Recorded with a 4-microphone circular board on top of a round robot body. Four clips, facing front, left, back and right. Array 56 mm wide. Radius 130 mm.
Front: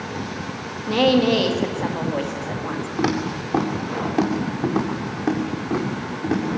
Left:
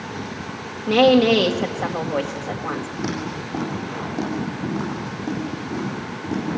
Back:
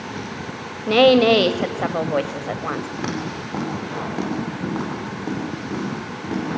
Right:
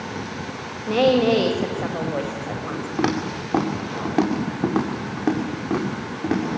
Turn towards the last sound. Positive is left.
turn(degrees=-85)